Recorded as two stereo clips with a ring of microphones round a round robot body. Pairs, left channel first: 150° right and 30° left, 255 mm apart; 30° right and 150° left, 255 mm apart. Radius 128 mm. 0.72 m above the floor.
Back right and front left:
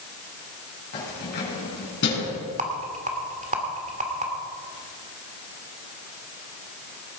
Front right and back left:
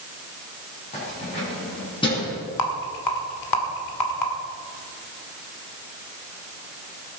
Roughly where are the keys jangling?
Right.